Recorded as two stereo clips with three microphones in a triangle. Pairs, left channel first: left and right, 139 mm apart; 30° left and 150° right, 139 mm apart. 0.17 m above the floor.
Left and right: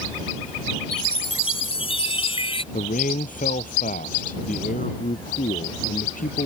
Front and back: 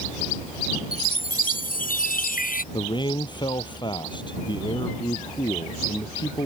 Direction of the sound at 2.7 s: 85° left.